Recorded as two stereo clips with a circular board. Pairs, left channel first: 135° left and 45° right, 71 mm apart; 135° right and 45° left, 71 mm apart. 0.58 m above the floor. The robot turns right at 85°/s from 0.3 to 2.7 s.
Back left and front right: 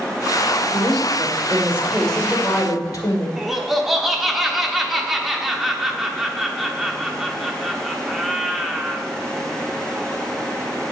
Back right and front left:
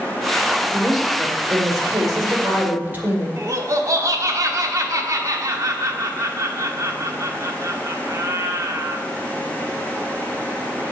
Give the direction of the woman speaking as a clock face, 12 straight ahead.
2 o'clock.